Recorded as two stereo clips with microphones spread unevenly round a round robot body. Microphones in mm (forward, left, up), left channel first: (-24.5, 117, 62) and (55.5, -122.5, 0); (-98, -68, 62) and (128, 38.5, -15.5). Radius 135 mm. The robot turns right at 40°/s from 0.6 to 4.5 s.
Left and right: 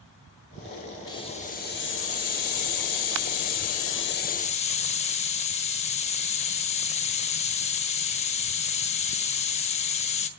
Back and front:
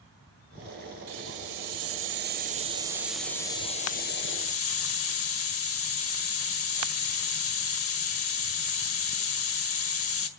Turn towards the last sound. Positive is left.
turn(degrees=170)